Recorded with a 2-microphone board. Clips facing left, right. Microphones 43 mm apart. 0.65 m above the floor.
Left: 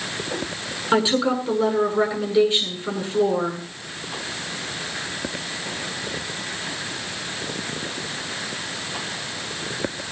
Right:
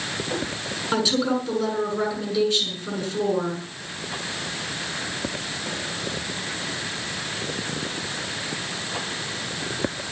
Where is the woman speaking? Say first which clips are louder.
Left 3 dB; 25° left (ahead or behind), 8 m.